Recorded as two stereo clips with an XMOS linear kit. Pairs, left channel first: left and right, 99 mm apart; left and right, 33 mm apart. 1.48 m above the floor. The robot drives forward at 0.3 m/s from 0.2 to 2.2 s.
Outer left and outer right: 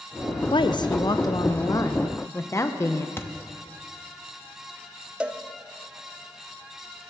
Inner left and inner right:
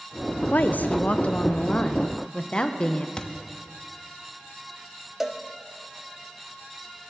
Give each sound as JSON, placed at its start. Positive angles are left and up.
{"t": 0.5, "sound": "a woman speaking", "side_deg": 55, "distance_m": 0.5}
{"t": 3.2, "sound": "a thud", "side_deg": 25, "distance_m": 0.9}
{"t": 5.2, "sound": "a cowbell", "side_deg": -10, "distance_m": 0.6}